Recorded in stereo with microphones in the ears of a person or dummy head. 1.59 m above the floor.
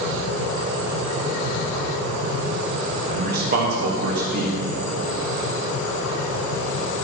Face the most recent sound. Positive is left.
turn(degrees=-55)  # may be behind; listen again after turning